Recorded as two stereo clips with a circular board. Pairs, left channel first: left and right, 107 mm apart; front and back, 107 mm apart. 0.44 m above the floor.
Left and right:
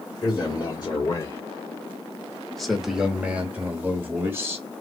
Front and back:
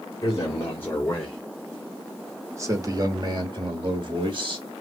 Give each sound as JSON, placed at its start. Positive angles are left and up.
{"t": 0.2, "sound": "a man speaking", "azimuth_deg": 55, "distance_m": 1.6}